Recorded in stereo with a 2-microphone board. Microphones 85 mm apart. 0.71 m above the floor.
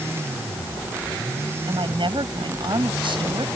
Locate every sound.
1.7 s a woman speaking: 75° right (ahead or behind)